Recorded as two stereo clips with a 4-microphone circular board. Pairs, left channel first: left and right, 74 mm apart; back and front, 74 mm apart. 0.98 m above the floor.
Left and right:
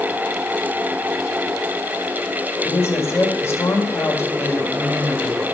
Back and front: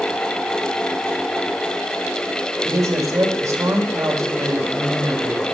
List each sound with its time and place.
2.6 s a woman speaking: 40° left, 2 m